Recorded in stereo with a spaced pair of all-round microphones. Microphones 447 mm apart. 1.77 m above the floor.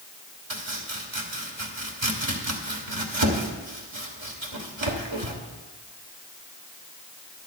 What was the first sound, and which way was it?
Chopping, 80° right.